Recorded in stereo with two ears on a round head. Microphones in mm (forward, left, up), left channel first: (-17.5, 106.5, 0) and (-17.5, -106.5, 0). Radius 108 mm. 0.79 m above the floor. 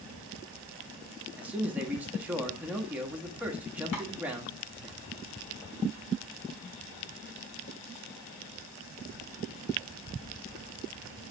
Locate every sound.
1.4 s a man speaking: 5° right (ahead or behind), 1.1 m
3.9 s tapping: 80° left, 2 m